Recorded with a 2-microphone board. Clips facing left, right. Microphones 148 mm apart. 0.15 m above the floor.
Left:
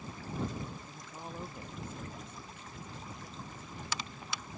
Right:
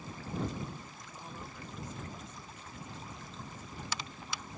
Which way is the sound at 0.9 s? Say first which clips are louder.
Left 3 dB; 35° left (ahead or behind).